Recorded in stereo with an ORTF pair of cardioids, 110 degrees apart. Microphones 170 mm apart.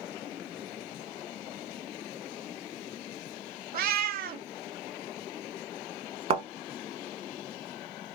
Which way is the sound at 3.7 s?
65° right.